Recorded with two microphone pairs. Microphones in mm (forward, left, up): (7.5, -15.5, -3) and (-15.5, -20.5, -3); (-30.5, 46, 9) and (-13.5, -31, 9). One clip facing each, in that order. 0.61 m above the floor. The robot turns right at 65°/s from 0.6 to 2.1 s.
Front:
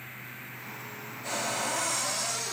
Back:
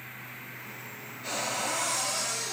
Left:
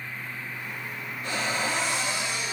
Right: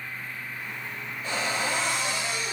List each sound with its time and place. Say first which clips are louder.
1.2 s a cupboard door: even, even; 120° left, 1.6 m; by 2.5 s straight behind, 1.6 m